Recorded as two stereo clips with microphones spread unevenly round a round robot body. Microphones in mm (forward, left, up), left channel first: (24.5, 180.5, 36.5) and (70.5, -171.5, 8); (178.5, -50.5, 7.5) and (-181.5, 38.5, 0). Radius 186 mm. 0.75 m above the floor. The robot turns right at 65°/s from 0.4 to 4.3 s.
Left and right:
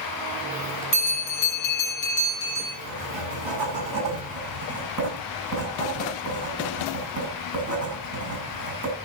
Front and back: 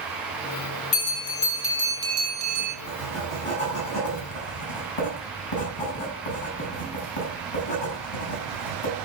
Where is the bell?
40° left, 6 m; by 2.8 s 160° left, 6 m.